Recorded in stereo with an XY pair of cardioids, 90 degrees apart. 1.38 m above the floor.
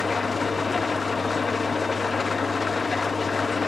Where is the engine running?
30° left, 1.2 m.